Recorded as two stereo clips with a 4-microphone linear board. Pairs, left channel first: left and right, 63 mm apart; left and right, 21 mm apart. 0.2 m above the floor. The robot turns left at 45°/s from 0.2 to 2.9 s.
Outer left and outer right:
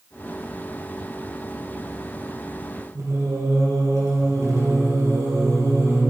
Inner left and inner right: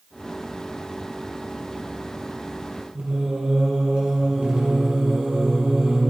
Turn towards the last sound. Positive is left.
turn(degrees=-60)  # may be behind; listen again after turning